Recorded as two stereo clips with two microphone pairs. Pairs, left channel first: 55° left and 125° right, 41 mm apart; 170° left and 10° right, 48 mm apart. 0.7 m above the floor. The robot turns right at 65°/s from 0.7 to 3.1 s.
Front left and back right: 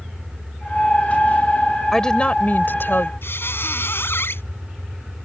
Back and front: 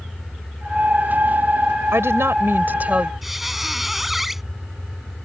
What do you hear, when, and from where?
1.9 s a woman speaking: 25° right; by 3.1 s 55° left
3.2 s a squeak: 70° left